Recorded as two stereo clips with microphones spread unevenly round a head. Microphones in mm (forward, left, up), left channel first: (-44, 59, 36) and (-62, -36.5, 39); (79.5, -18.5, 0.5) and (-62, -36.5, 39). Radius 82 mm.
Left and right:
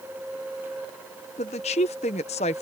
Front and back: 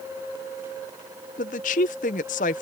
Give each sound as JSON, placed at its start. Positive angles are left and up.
{"t": 1.4, "sound": "a woman speaking", "azimuth_deg": 50}